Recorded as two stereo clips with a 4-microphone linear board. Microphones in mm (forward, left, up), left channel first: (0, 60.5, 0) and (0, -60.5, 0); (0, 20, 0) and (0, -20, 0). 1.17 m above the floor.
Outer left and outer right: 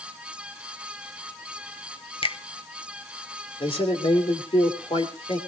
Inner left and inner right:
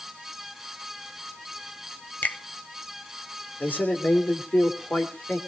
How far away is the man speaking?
About 3 m.